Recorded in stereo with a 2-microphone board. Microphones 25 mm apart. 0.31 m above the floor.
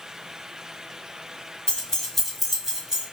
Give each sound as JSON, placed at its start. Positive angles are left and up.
{"t": 1.7, "sound": "keys jangling", "side_deg": 30, "distance_m": 0.7}